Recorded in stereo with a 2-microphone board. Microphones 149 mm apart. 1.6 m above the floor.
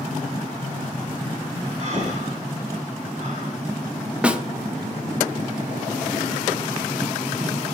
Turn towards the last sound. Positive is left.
turn(degrees=-10)  # may be behind; listen again after turning